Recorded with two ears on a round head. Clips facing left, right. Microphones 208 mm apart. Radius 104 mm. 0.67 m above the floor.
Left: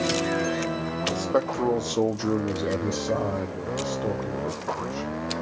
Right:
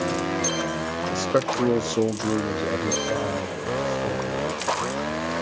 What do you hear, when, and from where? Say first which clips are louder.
1.1 s a man speaking: right 2 dB; 30° right (ahead or behind), 0.6 m; by 5.1 s 25° left (ahead or behind), 1.8 m